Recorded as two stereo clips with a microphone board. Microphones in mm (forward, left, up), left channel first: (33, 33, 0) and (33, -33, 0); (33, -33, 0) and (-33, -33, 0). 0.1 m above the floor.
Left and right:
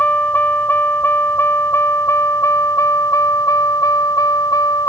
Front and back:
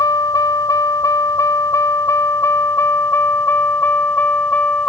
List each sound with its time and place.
0.0 s a vehicle: 25° left; by 4.9 s 65° left